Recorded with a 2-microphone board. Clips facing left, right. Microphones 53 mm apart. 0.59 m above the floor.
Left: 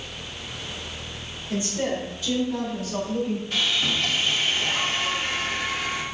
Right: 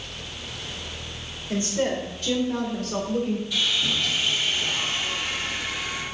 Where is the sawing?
45° left (ahead or behind), 1.2 m.